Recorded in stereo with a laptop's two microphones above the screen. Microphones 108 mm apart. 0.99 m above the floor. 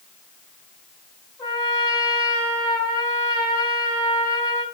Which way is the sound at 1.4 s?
40° left (ahead or behind).